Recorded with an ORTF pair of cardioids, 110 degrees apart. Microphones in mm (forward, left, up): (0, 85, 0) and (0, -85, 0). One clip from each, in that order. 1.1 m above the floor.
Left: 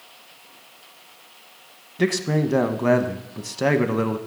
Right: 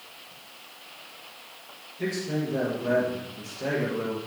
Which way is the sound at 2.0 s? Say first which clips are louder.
Left 7 dB; 70° left.